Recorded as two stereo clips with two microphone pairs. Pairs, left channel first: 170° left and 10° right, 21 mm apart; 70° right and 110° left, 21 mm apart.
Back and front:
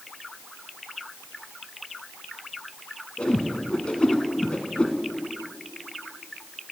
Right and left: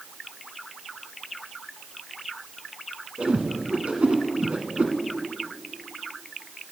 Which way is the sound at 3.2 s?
135° left.